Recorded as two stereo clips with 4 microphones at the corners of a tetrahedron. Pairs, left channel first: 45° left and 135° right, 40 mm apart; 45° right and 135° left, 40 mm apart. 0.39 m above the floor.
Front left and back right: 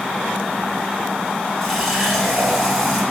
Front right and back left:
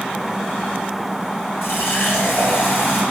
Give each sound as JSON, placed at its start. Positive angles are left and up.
{"t": 1.6, "sound": "a running tap", "azimuth_deg": -45, "distance_m": 2.5}